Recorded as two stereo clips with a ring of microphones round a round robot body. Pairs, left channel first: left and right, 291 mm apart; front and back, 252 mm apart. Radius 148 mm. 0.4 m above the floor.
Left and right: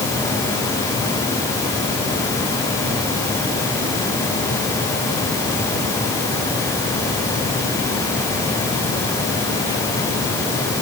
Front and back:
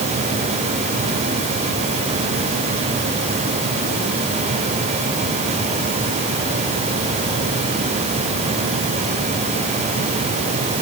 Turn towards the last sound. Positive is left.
No sound to turn to.